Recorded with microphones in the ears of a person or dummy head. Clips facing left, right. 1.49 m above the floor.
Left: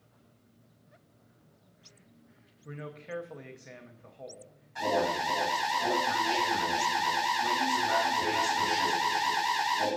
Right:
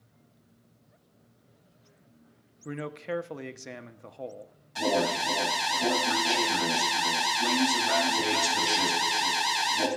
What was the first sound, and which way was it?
A man speaking, 55° right (ahead or behind).